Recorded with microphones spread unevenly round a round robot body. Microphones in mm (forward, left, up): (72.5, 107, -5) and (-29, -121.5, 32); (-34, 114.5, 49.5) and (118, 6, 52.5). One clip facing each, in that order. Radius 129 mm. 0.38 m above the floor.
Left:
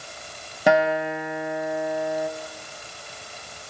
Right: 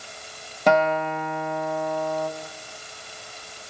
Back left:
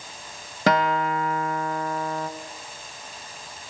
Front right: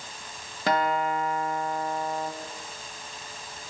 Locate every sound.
0.7 s a guitar: 145° left, 1.6 m